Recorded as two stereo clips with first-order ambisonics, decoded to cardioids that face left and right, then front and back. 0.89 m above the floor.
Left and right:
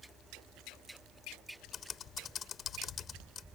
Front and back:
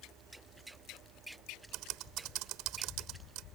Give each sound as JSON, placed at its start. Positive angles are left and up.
{"t": 1.7, "sound": "typing on a keyboard", "azimuth_deg": 150}